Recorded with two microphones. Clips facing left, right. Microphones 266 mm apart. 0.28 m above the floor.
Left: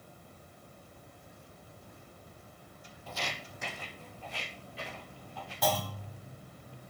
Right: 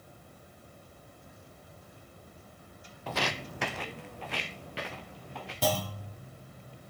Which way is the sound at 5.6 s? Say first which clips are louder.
Right 2 dB; 30° right (ahead or behind).